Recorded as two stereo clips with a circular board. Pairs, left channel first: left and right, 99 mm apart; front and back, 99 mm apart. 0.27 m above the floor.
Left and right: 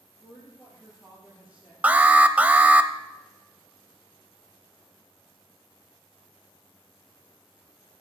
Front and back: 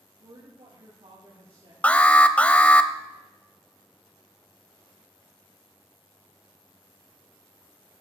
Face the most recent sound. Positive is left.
turn(degrees=-45)